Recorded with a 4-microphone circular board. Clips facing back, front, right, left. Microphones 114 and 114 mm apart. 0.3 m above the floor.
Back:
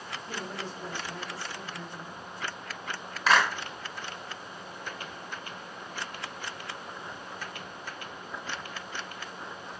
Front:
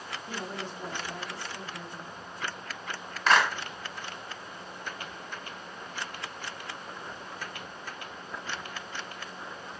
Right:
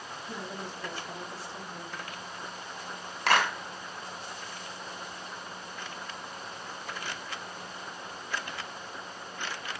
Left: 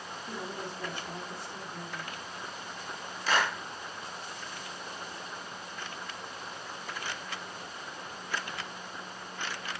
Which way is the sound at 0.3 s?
70° left.